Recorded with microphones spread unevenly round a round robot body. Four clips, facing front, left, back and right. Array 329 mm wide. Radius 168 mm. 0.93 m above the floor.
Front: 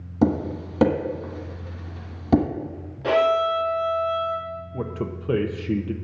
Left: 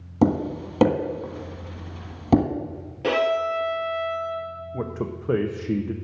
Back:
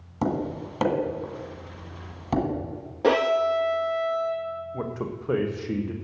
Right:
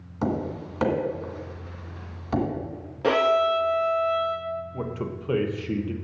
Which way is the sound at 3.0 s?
165° right.